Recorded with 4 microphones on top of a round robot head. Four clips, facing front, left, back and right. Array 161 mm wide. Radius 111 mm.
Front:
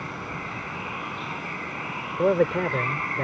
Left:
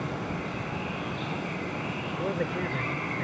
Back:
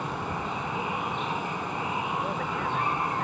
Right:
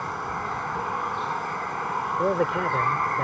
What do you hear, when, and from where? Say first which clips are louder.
0.0 s running water: right 3 dB, back 3 dB; 120° right
2.2 s a man speaking: right 6 dB, front 8 dB; 15° right